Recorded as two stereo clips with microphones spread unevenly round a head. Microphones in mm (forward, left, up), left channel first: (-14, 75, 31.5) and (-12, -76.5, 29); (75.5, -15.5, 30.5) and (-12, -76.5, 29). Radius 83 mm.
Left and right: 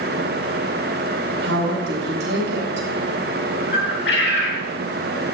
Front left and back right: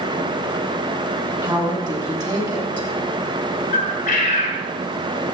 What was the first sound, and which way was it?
A woman speaking, 95° right.